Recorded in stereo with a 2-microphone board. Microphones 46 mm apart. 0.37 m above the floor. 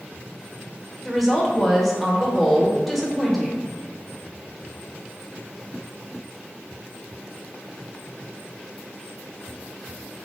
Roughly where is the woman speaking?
Centre.